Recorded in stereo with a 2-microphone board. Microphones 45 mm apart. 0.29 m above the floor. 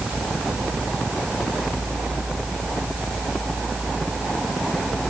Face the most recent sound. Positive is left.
No sound to turn to.